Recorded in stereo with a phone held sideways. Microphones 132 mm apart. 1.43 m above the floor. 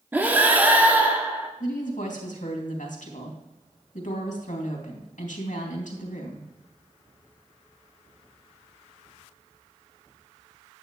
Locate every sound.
0.1 s breathing: 15° right (ahead or behind), 1.0 m
1.6 s a woman speaking: 85° left, 2.5 m